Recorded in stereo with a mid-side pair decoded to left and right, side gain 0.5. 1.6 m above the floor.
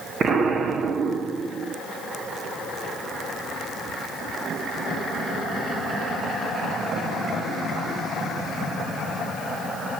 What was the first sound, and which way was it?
An explosion, 50° right.